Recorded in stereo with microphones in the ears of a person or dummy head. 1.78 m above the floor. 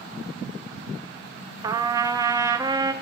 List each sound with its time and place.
1.6 s a trumpet: 15° right (ahead or behind), 0.7 m